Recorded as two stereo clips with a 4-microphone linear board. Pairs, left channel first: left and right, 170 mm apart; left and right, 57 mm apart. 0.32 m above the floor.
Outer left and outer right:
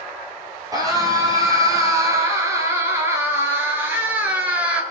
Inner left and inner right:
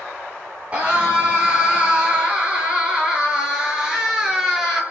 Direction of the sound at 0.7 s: 25° right (ahead or behind).